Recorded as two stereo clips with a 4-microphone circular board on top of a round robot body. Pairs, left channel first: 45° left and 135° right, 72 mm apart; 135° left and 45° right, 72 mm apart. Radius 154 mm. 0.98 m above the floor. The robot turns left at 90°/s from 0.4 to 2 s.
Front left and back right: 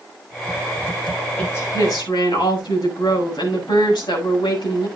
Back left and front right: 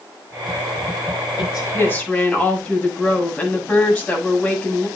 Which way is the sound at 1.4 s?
115° left.